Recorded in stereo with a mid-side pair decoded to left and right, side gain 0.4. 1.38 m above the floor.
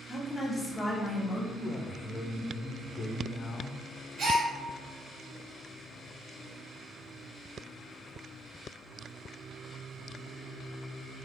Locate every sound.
0.1 s a woman speaking: 15° left, 1.1 m
1.5 s a man speaking: 40° left, 0.6 m
4.2 s a gasp: 70° right, 1.2 m